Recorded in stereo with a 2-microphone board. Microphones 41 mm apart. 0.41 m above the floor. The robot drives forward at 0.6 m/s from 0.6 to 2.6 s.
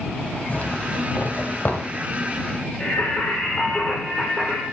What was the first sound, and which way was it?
A zipper, 35° left (ahead or behind).